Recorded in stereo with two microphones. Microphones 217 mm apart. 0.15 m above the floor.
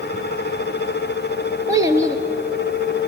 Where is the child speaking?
15° right (ahead or behind), 1.6 m.